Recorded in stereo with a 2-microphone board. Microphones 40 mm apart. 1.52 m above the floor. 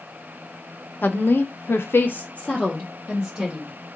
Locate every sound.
1.0 s a woman speaking: 50° left (ahead or behind), 1.0 m; by 3.7 s centre (ahead or behind), 1.8 m